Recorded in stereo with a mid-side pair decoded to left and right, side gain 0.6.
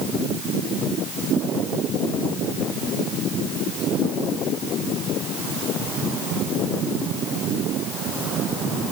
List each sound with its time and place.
Only background noise.